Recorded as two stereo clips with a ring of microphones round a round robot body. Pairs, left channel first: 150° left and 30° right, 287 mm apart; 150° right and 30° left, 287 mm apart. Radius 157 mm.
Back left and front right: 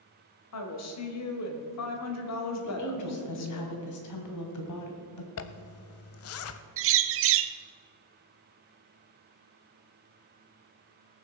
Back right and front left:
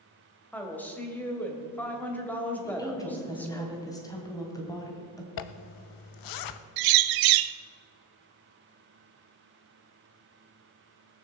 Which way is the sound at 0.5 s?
125° left.